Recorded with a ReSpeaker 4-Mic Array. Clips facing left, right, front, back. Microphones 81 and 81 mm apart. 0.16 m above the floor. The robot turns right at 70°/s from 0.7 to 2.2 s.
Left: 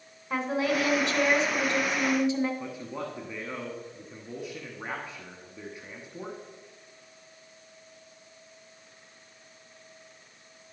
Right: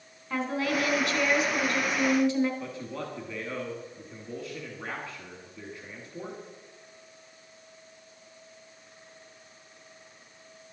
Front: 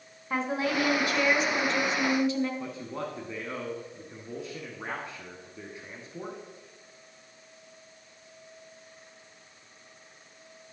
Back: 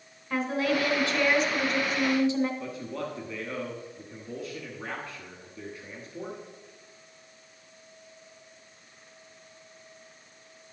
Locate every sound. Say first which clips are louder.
0.3 s a woman speaking: left 1 dB, back 2 dB; 35° left, 1.1 m; by 2.5 s 140° left, 1.1 m
2.6 s a man speaking: left 1 dB, back 1 dB; 35° left, 1.1 m